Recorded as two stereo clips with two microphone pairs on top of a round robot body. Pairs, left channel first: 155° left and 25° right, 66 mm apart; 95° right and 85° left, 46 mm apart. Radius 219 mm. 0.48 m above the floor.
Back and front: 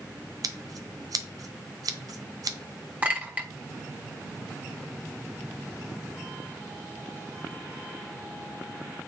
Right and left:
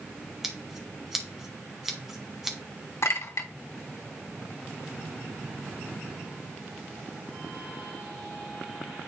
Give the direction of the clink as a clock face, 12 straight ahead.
3 o'clock.